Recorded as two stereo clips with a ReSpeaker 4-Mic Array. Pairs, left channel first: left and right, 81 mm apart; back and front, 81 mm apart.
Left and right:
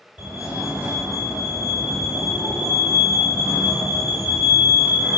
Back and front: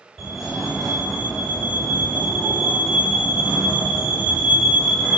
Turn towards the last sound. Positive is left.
turn(degrees=-95)